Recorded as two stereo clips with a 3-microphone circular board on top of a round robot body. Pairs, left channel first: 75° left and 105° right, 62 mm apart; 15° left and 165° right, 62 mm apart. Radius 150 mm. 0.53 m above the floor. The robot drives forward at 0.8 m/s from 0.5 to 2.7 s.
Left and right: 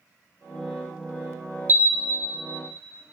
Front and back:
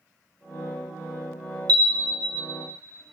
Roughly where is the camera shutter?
Behind.